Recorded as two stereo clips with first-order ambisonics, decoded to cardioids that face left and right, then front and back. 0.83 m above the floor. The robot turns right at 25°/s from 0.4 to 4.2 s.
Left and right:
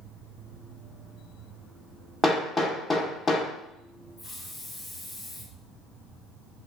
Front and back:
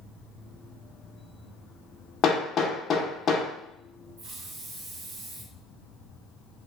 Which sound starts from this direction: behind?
A hiss, at 4.2 s.